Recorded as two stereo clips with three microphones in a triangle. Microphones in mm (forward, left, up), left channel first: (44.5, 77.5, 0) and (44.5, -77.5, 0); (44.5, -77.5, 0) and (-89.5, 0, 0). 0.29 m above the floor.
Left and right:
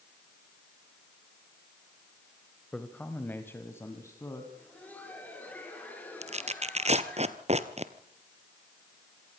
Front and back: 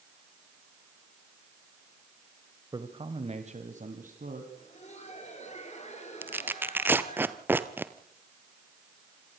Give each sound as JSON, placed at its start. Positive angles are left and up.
{"t": 2.7, "sound": "a man speaking", "azimuth_deg": 170, "distance_m": 1.3}
{"t": 4.5, "sound": "laughter", "azimuth_deg": 10, "distance_m": 6.0}
{"t": 6.2, "sound": "tearing paper", "azimuth_deg": -135, "distance_m": 1.0}